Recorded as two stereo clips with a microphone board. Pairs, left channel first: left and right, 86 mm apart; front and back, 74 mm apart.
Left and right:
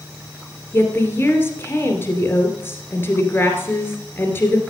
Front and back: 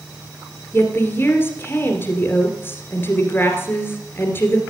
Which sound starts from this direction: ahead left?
A woman speaking, at 0.7 s.